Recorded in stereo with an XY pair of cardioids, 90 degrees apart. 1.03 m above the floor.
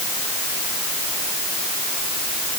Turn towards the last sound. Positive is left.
No sound to turn to.